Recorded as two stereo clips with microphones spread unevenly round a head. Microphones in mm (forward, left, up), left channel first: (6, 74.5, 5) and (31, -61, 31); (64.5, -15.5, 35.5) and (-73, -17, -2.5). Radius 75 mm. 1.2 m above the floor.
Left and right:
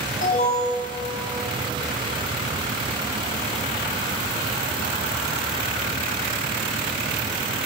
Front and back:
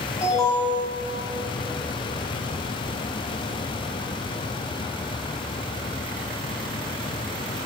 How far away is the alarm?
About 10 m.